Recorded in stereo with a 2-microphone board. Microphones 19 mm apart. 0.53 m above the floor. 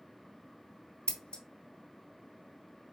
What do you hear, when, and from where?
1.1 s scissors: 65° left (ahead or behind), 0.8 m